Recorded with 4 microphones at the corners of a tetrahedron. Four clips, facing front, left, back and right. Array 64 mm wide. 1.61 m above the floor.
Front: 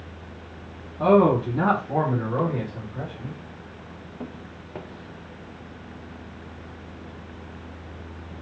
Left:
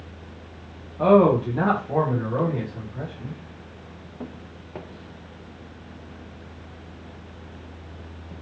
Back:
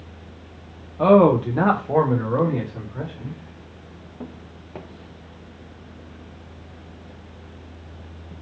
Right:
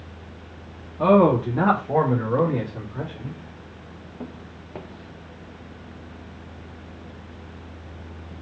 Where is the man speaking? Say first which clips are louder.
Even, back 3 dB; 170° left, 0.8 m; by 3.4 s 125° right, 1.6 m.